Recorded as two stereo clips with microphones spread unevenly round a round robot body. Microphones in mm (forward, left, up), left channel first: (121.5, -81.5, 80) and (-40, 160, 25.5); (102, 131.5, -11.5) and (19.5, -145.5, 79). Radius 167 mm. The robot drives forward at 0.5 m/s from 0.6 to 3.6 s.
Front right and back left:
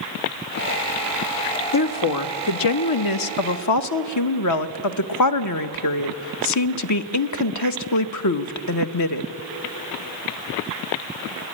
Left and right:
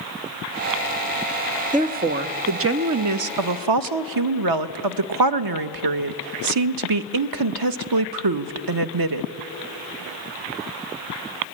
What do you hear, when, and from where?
1.7 s a woman speaking: 35° right, 1.2 m; by 9.3 s 90° right, 0.8 m